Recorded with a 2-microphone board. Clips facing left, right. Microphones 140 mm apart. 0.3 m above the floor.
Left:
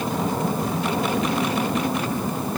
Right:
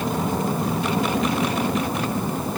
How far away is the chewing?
I don't hear chewing.